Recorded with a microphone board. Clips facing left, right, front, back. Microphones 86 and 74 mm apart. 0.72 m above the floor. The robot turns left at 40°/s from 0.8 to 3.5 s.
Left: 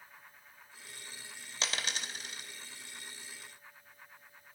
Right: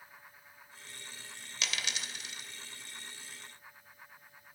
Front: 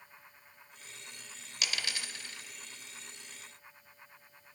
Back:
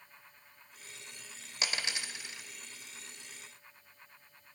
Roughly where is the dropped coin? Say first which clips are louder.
Left 1 dB, back 1 dB; behind left.